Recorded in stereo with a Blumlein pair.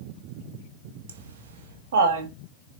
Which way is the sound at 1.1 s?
55° right.